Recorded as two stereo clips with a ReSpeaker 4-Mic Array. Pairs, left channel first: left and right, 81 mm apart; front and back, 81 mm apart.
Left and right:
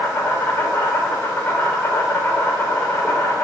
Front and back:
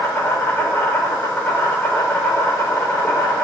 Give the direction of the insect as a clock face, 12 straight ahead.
11 o'clock.